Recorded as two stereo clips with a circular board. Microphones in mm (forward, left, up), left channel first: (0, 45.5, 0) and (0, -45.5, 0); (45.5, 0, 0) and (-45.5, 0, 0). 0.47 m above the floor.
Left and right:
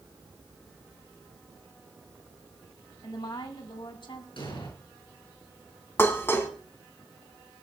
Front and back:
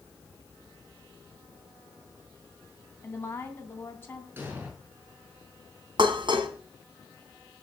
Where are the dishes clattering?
155° left, 2.5 m.